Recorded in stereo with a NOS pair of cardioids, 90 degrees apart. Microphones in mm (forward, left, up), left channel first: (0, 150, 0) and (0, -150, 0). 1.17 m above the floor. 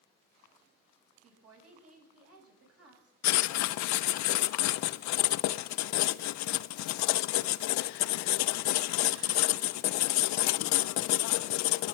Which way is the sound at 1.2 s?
55° right.